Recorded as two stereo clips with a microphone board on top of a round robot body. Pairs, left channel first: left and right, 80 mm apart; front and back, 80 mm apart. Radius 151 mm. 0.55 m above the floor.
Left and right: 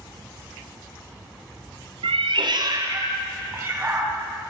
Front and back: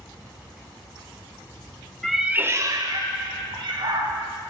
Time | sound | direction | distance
2.0 | a cat meowing | 85° right | 0.8 m